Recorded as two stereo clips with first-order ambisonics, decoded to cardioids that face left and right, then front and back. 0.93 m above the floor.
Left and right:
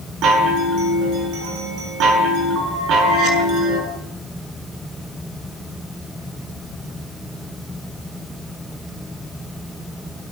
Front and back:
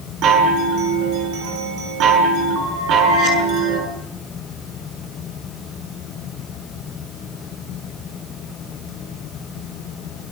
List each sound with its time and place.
0.2 s a chime: 135° right, 7.5 m